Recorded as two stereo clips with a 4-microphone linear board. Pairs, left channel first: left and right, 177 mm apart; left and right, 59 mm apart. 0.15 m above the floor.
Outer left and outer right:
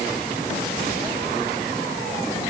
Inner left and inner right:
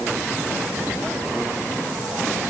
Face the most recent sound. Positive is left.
No sound to turn to.